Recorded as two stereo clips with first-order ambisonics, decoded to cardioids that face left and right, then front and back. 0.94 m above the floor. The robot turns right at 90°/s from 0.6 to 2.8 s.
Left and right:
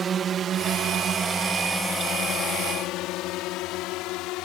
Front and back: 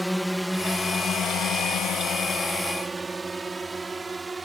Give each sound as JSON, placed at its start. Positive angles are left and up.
{"t": 0.0, "sound": "a drone", "azimuth_deg": -90}